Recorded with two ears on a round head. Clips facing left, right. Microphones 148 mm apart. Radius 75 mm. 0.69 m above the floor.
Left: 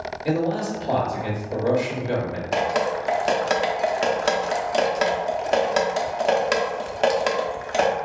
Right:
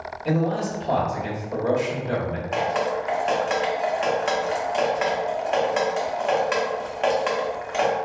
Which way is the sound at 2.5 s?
45° left (ahead or behind).